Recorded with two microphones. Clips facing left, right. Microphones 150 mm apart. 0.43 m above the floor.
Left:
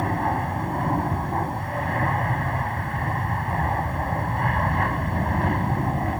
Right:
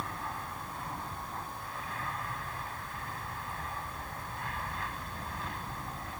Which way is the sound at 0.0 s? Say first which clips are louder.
Left 15 dB; 65° left (ahead or behind).